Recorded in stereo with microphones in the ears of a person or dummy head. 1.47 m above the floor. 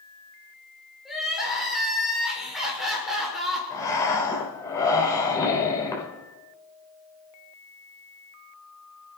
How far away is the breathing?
About 4 m.